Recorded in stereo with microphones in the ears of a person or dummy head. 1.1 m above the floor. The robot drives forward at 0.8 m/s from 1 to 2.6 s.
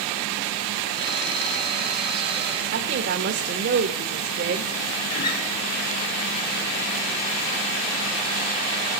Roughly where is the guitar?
Left.